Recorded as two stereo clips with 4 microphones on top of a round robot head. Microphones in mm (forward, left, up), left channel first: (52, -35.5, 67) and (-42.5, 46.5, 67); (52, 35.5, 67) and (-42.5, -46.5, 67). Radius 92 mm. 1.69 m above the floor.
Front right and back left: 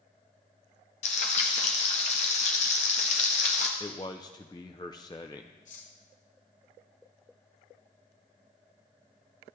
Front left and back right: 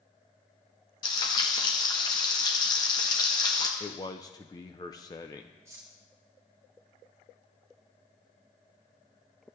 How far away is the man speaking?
About 0.6 m.